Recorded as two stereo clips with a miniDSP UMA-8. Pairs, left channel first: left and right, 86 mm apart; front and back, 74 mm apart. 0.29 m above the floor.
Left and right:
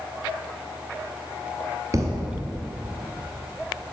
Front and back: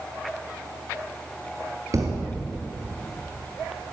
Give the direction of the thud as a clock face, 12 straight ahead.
5 o'clock.